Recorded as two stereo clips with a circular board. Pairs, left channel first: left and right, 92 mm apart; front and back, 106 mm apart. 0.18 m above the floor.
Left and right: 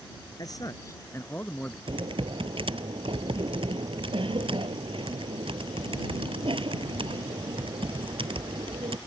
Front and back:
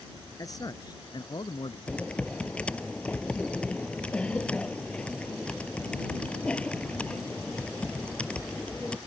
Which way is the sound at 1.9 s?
80° right.